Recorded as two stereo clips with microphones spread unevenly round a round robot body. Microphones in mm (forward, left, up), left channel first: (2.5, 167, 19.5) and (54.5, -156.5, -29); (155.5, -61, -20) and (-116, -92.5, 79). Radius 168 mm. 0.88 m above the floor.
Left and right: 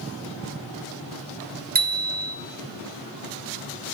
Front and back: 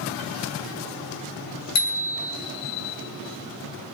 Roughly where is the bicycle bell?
Ahead.